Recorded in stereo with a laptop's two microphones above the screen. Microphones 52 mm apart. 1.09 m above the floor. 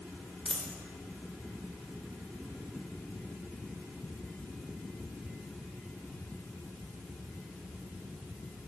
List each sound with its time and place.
0.5 s a dropped coin: 10° left (ahead or behind), 1.3 m